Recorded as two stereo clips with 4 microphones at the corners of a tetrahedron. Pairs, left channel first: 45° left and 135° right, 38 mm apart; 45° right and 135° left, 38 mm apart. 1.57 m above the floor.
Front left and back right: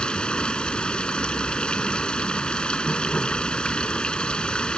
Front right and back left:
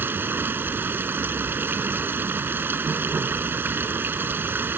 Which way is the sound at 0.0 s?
110° left.